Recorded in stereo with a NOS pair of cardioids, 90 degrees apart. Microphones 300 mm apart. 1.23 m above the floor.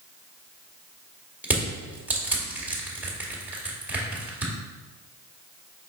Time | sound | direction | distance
1.4 | crushing | 5° right | 2 m